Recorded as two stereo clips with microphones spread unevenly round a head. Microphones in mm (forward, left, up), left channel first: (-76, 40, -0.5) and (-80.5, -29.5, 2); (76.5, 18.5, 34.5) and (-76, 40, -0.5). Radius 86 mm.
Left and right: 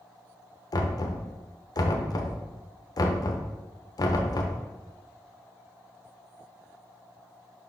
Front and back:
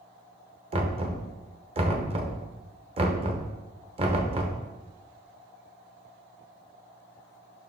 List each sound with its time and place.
0.7 s knocking: 115° left, 0.9 m